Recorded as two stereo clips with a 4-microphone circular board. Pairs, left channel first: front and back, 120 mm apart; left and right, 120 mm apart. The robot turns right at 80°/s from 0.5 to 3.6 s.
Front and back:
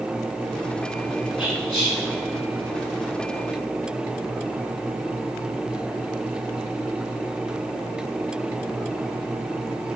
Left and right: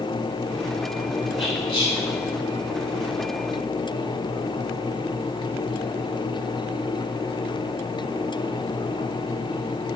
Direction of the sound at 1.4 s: 100° left.